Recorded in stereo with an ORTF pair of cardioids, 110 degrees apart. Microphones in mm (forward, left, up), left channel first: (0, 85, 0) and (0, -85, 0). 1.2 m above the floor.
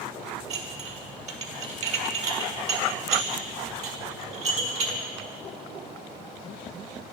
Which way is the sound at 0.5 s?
45° right.